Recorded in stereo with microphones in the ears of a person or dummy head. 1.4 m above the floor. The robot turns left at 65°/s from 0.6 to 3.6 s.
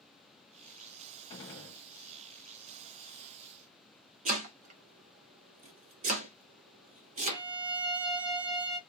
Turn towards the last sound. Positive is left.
turn(degrees=-65)  # may be behind; listen again after turning